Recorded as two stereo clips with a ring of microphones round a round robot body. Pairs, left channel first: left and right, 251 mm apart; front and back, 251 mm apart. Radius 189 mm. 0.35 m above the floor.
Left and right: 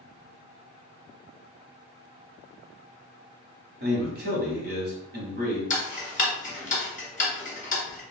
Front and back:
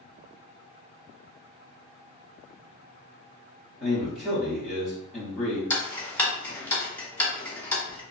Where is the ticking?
75° left, 1.2 m.